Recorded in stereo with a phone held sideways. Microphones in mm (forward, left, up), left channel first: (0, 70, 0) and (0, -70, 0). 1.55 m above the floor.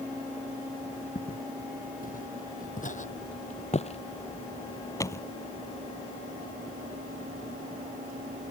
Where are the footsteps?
75° left (ahead or behind); by 5.2 s 15° left (ahead or behind).